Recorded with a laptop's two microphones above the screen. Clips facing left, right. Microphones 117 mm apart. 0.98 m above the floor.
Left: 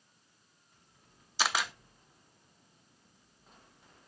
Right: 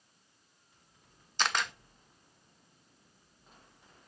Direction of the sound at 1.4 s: 5° left (ahead or behind).